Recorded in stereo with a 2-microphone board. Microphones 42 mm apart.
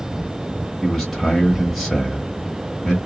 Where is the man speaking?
Centre (ahead or behind), 1.1 m.